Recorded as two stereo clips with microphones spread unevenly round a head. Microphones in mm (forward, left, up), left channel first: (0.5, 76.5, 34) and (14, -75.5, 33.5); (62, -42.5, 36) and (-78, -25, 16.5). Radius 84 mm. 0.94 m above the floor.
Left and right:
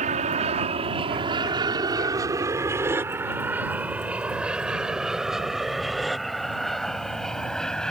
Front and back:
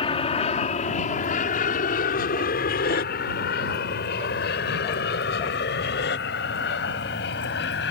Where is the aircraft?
50° right; by 7.9 s 10° left.